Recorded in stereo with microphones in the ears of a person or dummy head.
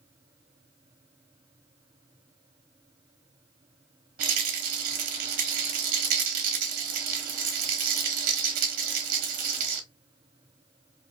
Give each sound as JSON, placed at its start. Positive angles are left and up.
{"t": 4.2, "sound": "a rattle", "side_deg": -50, "distance_m": 0.6}